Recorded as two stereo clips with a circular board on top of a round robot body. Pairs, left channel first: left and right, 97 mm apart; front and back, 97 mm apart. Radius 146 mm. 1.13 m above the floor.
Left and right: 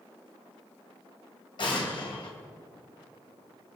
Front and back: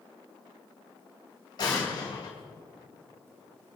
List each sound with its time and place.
1.6 s an explosion: 50° left, 3 m